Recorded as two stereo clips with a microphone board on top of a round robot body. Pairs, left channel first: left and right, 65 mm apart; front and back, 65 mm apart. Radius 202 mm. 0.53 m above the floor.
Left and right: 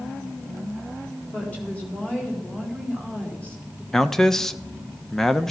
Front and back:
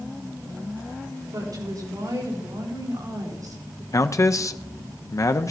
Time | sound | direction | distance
1.3 | a woman speaking | 160° left | 4 m
3.9 | a man speaking | 5° left | 0.8 m